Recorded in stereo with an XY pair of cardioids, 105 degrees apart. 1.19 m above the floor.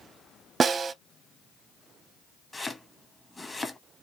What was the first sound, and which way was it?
A snare drum, 40° right.